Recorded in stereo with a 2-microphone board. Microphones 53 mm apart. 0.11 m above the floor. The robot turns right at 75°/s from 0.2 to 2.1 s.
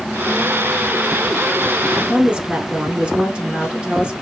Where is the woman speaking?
20° right (ahead or behind), 1.2 m.